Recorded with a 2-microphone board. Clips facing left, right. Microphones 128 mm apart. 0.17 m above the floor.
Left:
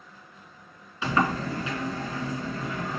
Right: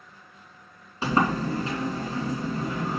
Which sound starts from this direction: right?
A sliding door, at 1.0 s.